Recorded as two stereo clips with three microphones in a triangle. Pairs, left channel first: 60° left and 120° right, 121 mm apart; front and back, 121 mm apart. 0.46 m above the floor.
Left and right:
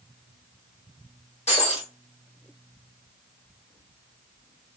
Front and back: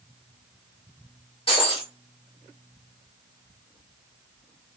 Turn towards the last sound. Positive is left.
turn(degrees=40)